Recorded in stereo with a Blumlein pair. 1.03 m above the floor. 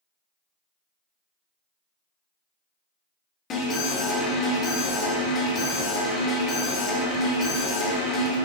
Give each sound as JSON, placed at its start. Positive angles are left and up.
{"t": 3.5, "sound": "an alarm", "azimuth_deg": 30, "distance_m": 2.5}